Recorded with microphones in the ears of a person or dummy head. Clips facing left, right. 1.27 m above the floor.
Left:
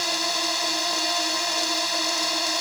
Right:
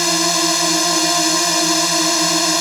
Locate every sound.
0.0 s a drone: 70° right (ahead or behind)